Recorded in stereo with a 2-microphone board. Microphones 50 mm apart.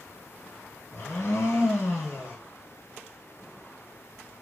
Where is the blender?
80° left, 1.1 m.